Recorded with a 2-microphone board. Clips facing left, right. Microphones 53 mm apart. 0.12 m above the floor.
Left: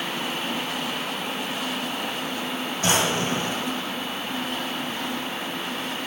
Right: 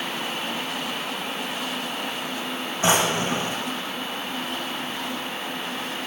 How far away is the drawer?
About 1.3 m.